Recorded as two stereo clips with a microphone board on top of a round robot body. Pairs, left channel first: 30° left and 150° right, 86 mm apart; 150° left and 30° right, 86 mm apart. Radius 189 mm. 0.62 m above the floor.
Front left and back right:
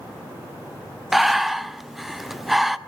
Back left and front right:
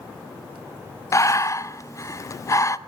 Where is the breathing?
125° left, 1.1 m.